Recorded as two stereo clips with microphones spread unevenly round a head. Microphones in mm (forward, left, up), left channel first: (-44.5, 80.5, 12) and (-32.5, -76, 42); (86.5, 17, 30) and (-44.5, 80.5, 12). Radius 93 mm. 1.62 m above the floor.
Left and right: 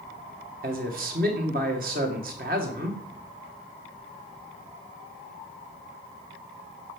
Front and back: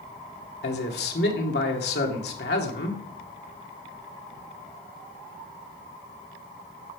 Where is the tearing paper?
I don't hear tearing paper.